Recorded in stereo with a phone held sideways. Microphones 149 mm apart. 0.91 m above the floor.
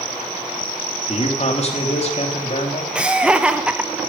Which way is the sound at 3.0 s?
5° right (ahead or behind).